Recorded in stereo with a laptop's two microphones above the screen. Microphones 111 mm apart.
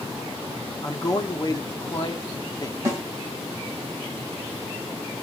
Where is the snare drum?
30° right (ahead or behind), 1.6 m.